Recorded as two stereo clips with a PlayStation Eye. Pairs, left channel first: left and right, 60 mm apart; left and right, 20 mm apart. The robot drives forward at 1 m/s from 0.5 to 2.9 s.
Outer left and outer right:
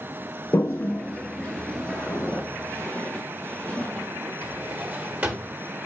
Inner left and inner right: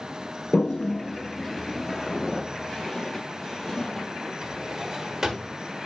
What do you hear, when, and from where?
0.5 s a toilet flushing: 60° left (ahead or behind), 0.6 m; by 2.4 s 15° left (ahead or behind), 2 m
1.9 s footsteps: 40° left (ahead or behind), 2.5 m; by 4.3 s 15° left (ahead or behind), 1.7 m
4.4 s a drawer: 25° right (ahead or behind), 1.4 m